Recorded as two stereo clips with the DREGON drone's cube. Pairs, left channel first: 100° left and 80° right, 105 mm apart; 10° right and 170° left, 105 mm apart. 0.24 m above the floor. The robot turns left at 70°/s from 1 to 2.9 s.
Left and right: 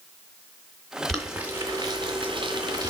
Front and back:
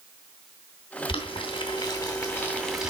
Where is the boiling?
15° left, 2.5 m; by 2.9 s 110° right, 2.5 m.